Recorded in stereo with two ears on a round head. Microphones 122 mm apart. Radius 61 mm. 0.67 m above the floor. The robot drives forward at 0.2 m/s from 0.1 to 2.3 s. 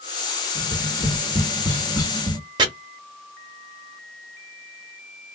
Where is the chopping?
30° right (ahead or behind), 0.9 m.